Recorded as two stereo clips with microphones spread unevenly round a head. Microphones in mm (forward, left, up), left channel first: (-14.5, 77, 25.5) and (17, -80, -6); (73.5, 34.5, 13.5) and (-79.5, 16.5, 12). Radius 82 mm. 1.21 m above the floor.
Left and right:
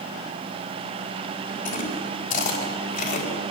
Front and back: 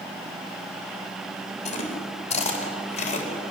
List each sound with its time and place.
1.6 s chewing: 55° left, 4 m